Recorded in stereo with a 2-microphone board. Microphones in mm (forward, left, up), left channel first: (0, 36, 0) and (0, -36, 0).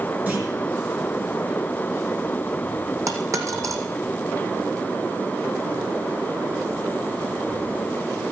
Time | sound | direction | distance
0.3 | a clunk | 25° right (ahead or behind) | 4.5 m
3.1 | a dropped coin | 50° right (ahead or behind) | 2 m